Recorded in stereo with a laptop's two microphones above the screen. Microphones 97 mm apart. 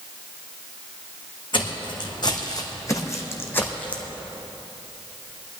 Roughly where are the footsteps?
Left.